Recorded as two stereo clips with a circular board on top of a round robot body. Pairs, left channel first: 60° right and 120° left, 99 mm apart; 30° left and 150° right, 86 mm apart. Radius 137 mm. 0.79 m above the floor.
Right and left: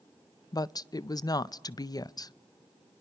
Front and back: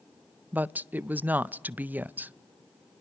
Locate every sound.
0.5 s a woman speaking: 85° right, 0.6 m